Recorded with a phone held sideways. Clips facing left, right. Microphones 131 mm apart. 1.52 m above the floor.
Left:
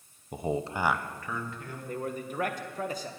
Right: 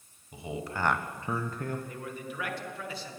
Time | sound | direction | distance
0.3 | a man speaking | 50° left (ahead or behind) | 1.0 m
1.9 | a man speaking | 40° left (ahead or behind) | 1.5 m